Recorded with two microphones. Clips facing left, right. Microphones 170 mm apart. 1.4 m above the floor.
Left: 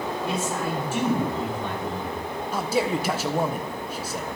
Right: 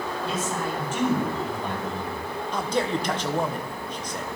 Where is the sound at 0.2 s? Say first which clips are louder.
Left 1 dB; 15° left (ahead or behind), 5 m; by 2.2 s 5° right (ahead or behind), 5 m.